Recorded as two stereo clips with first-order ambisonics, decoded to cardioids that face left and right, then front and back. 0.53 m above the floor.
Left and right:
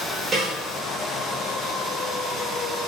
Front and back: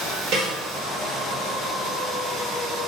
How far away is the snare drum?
About 2.5 m.